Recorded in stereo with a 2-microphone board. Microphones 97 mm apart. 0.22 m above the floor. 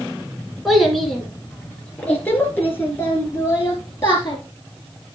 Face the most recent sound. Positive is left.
turn(degrees=35)  # may be behind; listen again after turning